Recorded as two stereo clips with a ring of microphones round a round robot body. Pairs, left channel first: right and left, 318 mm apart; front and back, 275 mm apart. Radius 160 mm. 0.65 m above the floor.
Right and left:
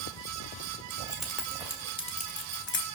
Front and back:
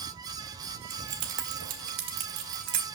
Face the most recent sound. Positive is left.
turn(degrees=-140)